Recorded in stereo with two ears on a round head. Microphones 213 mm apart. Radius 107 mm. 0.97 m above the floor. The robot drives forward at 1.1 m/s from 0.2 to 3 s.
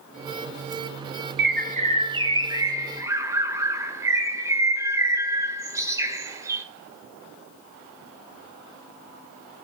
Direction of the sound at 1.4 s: 45° right (ahead or behind).